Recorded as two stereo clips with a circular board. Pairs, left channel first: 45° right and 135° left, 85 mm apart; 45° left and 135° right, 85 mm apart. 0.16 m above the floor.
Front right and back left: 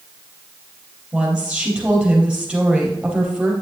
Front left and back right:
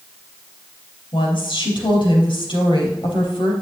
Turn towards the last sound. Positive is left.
turn(degrees=55)